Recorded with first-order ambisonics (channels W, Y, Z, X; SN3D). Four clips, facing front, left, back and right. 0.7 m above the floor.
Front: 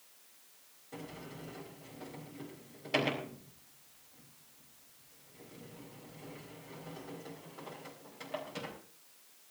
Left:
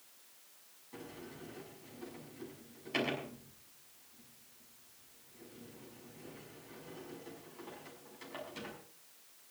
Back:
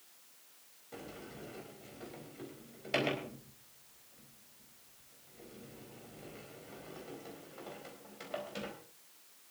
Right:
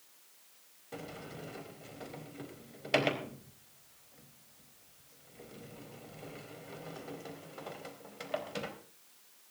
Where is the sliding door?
95° right, 4 m.